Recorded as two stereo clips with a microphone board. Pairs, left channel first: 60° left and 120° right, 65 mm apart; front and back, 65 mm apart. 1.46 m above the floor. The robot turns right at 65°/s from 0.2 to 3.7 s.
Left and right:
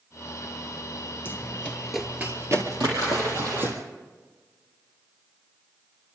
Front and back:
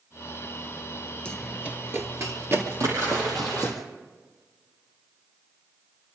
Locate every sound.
1.2 s running footsteps: 60° left, 1.7 m; by 3.8 s 55° right, 3.5 m
2.8 s a splash: 140° right, 7.5 m; by 3.7 s 80° right, 7.5 m